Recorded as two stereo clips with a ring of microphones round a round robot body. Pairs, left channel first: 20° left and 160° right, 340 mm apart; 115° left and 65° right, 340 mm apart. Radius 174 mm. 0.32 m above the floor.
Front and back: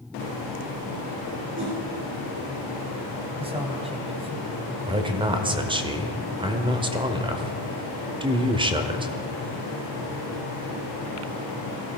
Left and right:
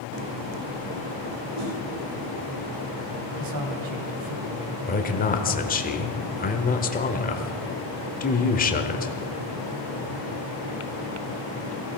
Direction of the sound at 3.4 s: 85° right.